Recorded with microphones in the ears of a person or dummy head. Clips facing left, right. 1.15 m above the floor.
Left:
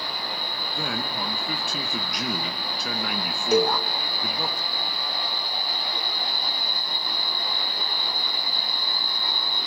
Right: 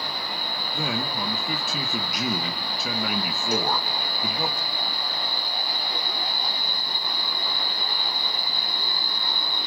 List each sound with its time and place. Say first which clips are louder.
0.7 s a man speaking: right 2 dB; centre (ahead or behind), 1.1 m
3.5 s a cowbell: left 6 dB; 70° left (ahead or behind), 0.6 m